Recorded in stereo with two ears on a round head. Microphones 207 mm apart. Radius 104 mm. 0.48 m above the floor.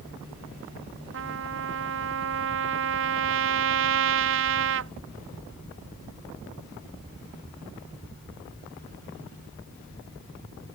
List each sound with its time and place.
1.1 s a trumpet: 60° right (ahead or behind)